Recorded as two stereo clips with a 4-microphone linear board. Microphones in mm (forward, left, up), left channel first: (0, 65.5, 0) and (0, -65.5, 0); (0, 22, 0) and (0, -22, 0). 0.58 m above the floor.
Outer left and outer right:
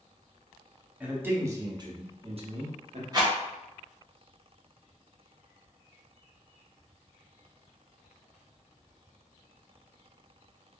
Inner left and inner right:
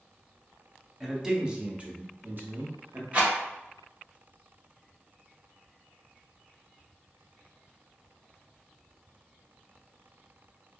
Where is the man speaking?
10° right (ahead or behind), 1.0 m; by 3.0 s 55° right (ahead or behind), 1.1 m.